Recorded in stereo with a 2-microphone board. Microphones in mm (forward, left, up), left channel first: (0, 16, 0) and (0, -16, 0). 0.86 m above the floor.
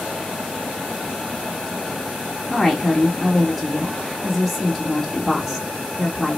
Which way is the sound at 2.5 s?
Centre (ahead or behind).